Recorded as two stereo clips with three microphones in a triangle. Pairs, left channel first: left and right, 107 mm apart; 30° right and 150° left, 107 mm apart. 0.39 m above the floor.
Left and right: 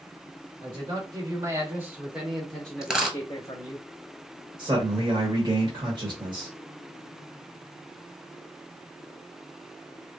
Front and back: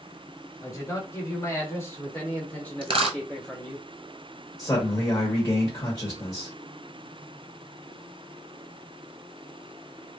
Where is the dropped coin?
175° right, 0.8 m.